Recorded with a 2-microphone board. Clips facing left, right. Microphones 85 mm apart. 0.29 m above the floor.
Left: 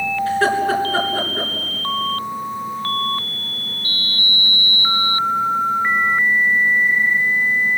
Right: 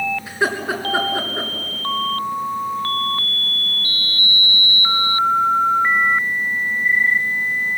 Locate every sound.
0.3 s laughter: 15° right (ahead or behind), 3.5 m